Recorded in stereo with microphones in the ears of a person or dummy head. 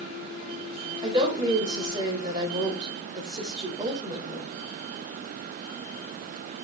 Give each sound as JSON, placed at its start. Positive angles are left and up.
{"t": 1.0, "sound": "a woman speaking", "side_deg": -20, "distance_m": 4.5}